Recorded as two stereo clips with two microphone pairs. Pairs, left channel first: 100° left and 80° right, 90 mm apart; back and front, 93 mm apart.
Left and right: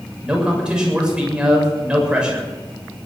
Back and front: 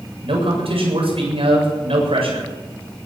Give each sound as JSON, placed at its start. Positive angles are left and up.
{"t": 0.2, "sound": "a man speaking", "azimuth_deg": 0, "distance_m": 7.0}